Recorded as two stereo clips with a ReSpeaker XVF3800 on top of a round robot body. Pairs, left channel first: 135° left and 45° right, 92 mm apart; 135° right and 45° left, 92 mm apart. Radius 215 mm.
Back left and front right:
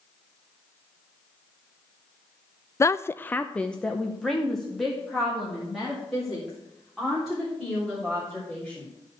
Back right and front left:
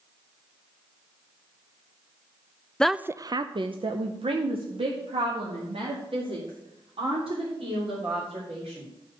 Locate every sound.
2.8 s a woman speaking: 155° left, 0.5 m; by 8.9 s 45° left, 5 m